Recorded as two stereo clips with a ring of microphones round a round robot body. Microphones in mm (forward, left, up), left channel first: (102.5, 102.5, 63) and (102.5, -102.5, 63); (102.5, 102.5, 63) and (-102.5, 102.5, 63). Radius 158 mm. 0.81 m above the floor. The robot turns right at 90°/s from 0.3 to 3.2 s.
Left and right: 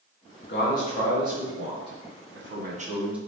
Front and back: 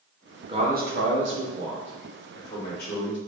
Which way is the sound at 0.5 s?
115° left.